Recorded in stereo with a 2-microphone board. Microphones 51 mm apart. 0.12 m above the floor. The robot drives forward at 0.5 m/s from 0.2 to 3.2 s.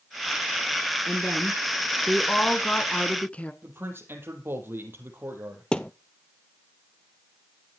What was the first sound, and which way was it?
A woman speaking, 20° left (ahead or behind).